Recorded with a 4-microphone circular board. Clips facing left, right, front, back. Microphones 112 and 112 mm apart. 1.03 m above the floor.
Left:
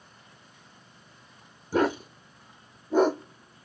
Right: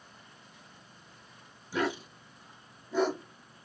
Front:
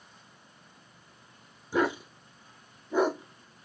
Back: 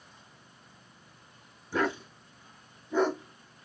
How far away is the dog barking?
About 0.6 m.